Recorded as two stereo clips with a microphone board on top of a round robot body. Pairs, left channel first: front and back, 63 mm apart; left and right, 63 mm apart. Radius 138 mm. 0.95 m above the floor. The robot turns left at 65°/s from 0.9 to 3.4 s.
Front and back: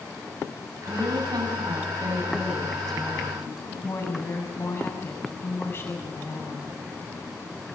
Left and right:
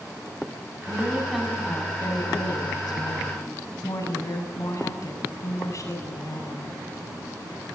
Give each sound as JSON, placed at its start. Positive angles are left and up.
{"t": 0.8, "sound": "a woman speaking", "azimuth_deg": -145, "distance_m": 7.0}